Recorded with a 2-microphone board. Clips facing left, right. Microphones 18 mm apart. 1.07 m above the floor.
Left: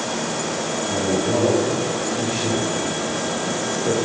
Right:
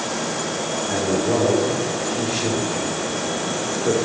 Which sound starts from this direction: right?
A man speaking, at 0.9 s.